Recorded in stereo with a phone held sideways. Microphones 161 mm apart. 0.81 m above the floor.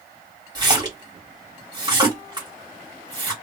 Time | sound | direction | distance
0.6 | a splash | 25° right (ahead or behind) | 1.2 m